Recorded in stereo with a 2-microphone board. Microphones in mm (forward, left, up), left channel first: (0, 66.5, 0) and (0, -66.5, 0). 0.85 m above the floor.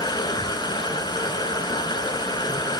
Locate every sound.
0.0 s running water: 30° left (ahead or behind), 3 m